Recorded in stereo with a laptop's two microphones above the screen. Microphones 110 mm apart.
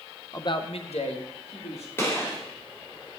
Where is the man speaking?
30° left (ahead or behind), 0.6 m; by 1.9 s 75° left (ahead or behind), 2.5 m.